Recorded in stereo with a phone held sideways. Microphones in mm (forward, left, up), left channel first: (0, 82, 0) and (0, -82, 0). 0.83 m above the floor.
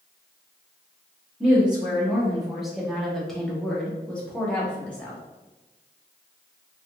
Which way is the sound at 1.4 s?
5° right (ahead or behind).